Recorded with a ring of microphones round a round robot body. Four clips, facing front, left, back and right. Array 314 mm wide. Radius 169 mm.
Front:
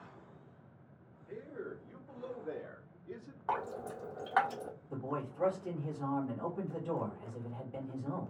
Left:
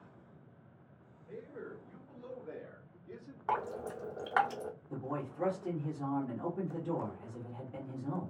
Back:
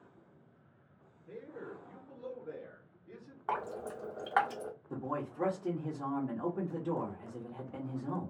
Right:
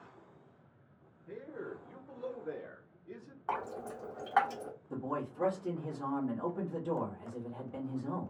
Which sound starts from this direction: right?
A man speaking, at 1.3 s.